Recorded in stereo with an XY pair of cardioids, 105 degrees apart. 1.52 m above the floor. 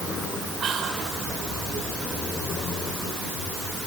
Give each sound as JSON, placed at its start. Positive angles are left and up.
{"t": 0.6, "sound": "whispering", "azimuth_deg": -50, "distance_m": 5.0}